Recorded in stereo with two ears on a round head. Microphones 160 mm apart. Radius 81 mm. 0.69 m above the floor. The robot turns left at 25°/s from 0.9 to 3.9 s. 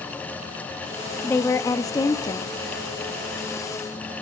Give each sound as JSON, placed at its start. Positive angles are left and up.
{"t": 1.2, "sound": "a woman speaking", "side_deg": 15, "distance_m": 0.7}